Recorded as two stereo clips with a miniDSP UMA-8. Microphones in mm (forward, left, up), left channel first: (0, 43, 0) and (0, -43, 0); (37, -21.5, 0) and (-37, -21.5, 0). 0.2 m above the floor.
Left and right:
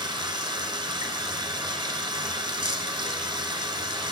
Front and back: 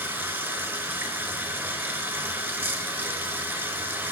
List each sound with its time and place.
0.0 s running water: 120° right, 0.9 m